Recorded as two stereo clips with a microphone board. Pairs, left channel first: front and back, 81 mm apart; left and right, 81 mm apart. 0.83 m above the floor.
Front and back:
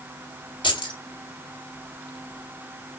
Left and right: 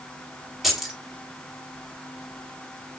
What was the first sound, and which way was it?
Keys jangling, 5° right.